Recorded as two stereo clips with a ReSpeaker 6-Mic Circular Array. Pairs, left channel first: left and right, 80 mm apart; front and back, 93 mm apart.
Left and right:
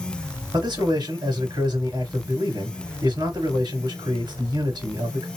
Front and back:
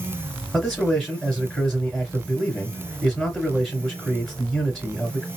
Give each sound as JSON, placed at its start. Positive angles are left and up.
{"t": 0.5, "sound": "a man speaking", "azimuth_deg": -90, "distance_m": 3.0}